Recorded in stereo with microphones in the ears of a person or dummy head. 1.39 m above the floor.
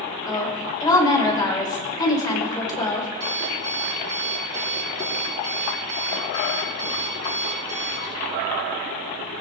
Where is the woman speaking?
20° left (ahead or behind), 4.5 m.